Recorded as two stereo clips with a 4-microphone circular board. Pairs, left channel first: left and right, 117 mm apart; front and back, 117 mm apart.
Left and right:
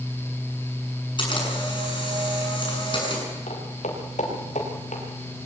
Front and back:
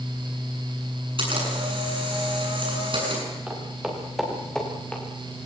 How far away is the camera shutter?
About 7.5 m.